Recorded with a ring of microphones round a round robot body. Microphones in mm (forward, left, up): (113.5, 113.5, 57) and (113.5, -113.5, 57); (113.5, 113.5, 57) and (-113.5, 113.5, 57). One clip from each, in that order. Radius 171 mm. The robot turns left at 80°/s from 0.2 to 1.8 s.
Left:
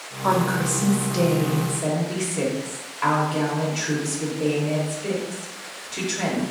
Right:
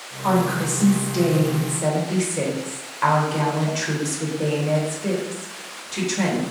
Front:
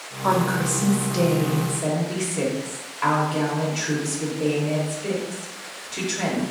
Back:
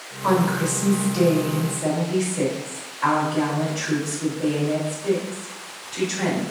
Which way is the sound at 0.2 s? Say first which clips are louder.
Even, even; 95° left.